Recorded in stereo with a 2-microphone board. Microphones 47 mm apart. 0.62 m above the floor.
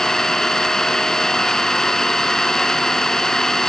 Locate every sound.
0.0 s an engine running: 10° left (ahead or behind), 2 m